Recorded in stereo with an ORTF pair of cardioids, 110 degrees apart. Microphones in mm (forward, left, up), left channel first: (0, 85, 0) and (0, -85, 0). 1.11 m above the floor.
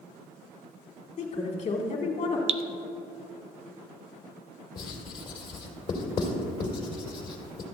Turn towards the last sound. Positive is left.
turn(degrees=35)